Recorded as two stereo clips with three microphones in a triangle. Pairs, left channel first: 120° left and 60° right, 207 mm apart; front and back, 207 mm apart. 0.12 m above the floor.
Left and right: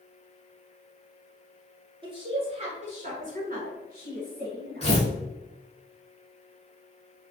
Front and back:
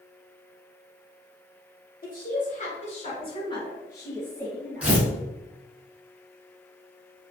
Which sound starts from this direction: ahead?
A woman speaking, at 2.0 s.